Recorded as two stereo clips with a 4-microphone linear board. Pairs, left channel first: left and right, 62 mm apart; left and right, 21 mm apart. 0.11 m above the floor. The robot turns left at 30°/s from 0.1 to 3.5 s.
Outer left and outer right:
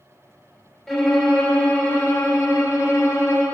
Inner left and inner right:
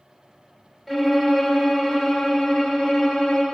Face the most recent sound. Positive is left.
turn(degrees=100)